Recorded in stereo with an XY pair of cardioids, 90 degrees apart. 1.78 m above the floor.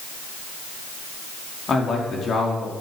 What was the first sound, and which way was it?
A man speaking, 50° left.